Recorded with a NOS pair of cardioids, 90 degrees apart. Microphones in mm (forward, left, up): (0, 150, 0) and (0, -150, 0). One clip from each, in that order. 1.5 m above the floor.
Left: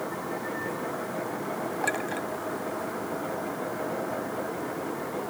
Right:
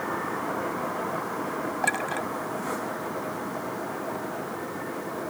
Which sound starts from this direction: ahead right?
A clink, at 1.8 s.